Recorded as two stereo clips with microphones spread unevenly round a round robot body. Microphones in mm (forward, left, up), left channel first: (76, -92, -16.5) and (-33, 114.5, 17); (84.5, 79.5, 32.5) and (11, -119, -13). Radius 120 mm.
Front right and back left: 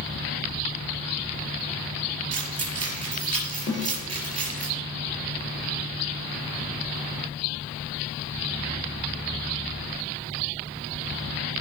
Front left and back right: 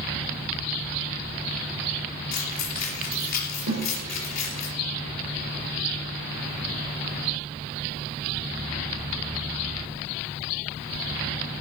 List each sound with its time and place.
2.3 s keys jangling: 90° left, 4.5 m
3.7 s a snare drum: 130° right, 5.5 m